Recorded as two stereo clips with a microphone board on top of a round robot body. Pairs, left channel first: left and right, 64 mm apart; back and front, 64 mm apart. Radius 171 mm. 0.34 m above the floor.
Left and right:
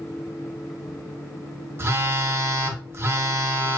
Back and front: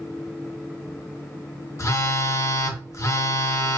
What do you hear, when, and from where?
1.8 s a phone buzzing: 140° right, 0.6 m